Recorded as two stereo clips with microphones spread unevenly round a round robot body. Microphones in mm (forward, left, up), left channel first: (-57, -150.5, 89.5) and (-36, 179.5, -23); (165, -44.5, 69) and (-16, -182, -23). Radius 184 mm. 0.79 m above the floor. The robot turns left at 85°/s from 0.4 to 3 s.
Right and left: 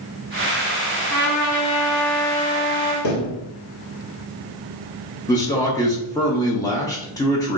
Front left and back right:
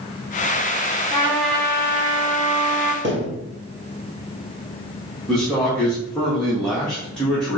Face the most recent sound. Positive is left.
turn(degrees=165)